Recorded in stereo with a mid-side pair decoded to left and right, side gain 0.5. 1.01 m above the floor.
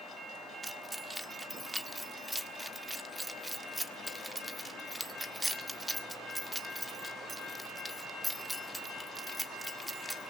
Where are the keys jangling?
10° right, 1.6 m.